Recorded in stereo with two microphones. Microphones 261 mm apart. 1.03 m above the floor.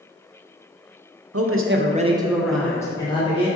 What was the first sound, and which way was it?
A man speaking, 70° right (ahead or behind).